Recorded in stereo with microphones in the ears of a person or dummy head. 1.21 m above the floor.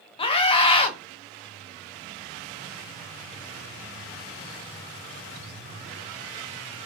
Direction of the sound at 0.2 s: 20° left (ahead or behind).